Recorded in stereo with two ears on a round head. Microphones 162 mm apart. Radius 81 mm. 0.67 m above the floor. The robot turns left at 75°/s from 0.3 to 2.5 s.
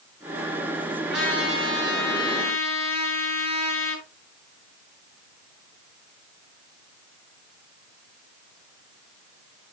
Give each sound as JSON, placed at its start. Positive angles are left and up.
{"t": 1.1, "sound": "a trumpet", "azimuth_deg": -175, "distance_m": 9.5}